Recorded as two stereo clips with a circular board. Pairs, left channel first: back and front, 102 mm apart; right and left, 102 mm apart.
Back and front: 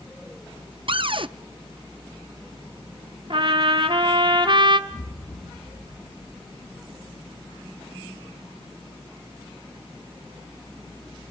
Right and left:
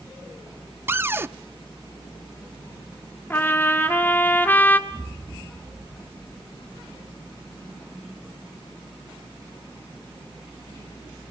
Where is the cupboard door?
25° left, 0.5 m.